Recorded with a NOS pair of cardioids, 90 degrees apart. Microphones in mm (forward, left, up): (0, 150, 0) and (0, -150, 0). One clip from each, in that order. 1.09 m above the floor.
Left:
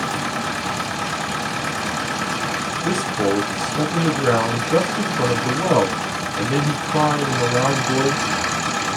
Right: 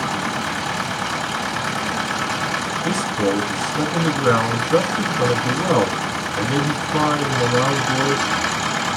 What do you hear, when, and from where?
0.0 s a machine running: 5° left, 1.1 m
2.8 s a man speaking: straight ahead, 1.2 m